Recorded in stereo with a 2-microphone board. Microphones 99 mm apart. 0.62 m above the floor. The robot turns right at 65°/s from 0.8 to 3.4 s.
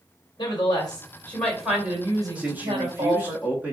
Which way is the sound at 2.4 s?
15° right (ahead or behind).